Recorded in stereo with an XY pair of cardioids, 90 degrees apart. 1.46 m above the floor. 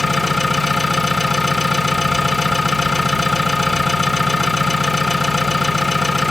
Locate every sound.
0.0 s an engine running: 15° left, 1.4 m